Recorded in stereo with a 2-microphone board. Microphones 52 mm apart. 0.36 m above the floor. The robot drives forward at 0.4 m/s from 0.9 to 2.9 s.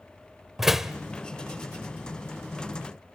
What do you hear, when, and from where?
0.6 s a door slam: 5° right (ahead or behind), 0.7 m